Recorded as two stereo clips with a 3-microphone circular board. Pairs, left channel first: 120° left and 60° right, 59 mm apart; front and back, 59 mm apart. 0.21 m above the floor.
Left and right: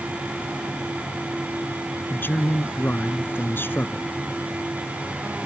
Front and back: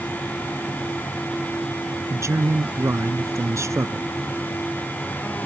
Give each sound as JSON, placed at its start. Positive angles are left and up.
{"t": 2.1, "sound": "a man speaking", "azimuth_deg": 165}